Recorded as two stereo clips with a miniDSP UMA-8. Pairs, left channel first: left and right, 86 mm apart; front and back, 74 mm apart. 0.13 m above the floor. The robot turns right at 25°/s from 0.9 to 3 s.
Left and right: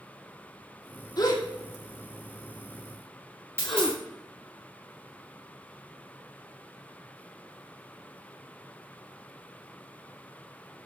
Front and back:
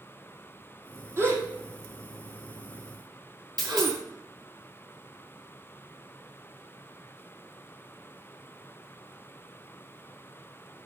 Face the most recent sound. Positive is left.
turn(degrees=-150)